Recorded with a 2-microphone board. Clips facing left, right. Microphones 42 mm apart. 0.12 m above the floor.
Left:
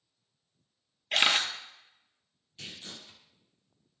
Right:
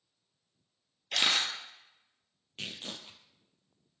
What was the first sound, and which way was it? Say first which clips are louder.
A camera shutter: left 3 dB; 40° left (ahead or behind).